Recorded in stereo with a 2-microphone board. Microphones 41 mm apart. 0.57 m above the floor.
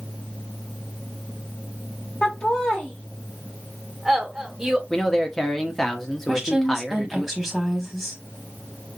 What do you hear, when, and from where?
2.2 s laughter: 40° left (ahead or behind), 1.4 m; by 4.8 s 20° right (ahead or behind), 1.4 m
4.9 s a man speaking: 15° left (ahead or behind), 1.0 m
6.3 s a woman speaking: centre (ahead or behind), 1.2 m